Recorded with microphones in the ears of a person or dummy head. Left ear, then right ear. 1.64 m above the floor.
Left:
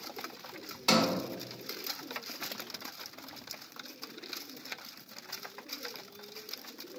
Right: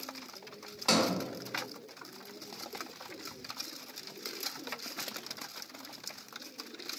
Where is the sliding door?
5° left (ahead or behind), 0.7 m.